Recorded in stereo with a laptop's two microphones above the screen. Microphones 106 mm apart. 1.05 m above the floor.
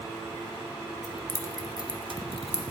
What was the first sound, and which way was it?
Keys jangling, 10° left (ahead or behind).